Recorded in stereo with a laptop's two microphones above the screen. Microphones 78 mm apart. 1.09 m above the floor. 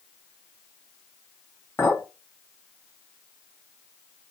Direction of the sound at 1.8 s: 25° left (ahead or behind).